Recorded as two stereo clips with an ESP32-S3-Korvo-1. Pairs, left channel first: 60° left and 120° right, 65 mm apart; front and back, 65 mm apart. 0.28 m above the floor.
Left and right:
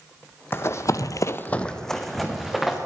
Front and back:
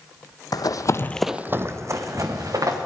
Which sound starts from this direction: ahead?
Running footsteps, at 0.5 s.